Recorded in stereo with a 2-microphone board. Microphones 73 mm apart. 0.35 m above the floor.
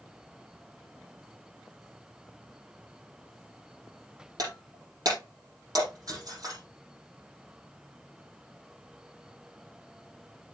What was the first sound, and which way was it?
Breaking glass, 55° right (ahead or behind).